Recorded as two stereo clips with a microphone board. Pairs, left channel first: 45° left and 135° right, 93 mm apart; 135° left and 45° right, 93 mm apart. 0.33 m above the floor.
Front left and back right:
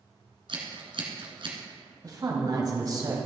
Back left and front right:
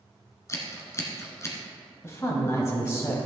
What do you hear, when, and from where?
0.5 s scissors: 165° right, 2.5 m
2.0 s a woman speaking: 175° right, 2.5 m